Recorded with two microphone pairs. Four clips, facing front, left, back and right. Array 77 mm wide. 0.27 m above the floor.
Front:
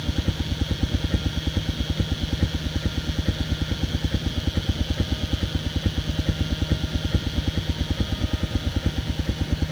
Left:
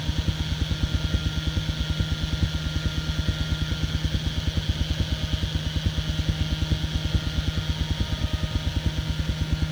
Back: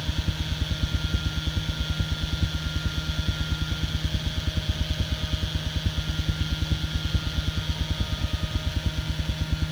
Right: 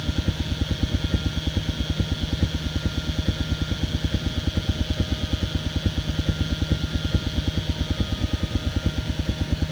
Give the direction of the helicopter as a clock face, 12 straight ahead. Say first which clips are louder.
Right 3 dB, front 4 dB; 1 o'clock.